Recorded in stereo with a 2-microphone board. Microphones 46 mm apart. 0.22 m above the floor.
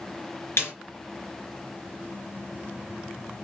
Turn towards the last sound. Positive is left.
turn(degrees=60)  # may be behind; listen again after turning